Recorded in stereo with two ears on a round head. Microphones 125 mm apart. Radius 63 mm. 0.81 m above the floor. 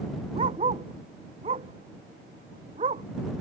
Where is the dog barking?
40° right (ahead or behind).